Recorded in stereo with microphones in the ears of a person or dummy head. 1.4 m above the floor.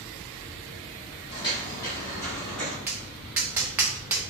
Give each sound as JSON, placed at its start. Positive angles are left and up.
{"t": 1.3, "sound": "footsteps", "side_deg": 25, "distance_m": 1.9}
{"t": 2.9, "sound": "tapping", "side_deg": -10, "distance_m": 0.6}